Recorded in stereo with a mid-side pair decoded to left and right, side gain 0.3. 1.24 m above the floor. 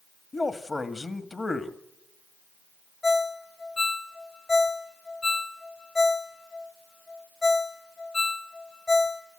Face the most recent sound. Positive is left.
turn(degrees=40)